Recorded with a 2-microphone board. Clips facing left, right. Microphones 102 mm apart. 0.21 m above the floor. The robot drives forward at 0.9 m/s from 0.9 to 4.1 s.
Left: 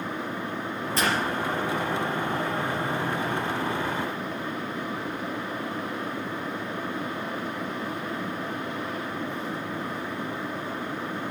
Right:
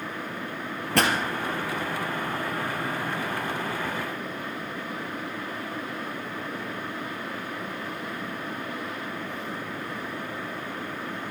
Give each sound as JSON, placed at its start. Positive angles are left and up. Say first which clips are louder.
{"t": 0.9, "sound": "a pop", "louder": "right 3 dB", "side_deg": -65, "distance_m": 3.5}